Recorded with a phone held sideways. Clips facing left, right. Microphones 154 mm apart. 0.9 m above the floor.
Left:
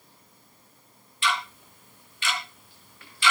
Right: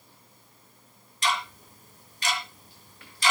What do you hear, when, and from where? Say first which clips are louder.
1.2 s ticking: even; 40° right (ahead or behind), 3 m